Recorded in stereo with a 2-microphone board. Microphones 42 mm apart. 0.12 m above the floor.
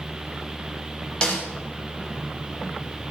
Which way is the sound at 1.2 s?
20° left (ahead or behind).